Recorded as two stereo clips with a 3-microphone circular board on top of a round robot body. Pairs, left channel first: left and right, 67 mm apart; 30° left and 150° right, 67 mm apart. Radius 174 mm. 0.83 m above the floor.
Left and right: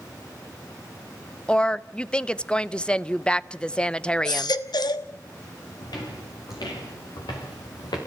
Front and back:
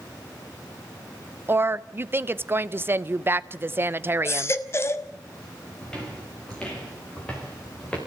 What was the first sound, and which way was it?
A woman speaking, 160° left.